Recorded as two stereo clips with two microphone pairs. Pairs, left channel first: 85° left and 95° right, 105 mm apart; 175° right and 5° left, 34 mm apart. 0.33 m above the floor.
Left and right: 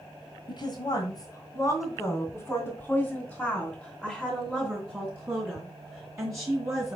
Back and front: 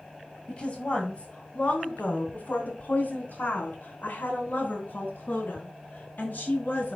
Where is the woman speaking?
125° left, 2 m; by 7.0 s 150° right, 3 m.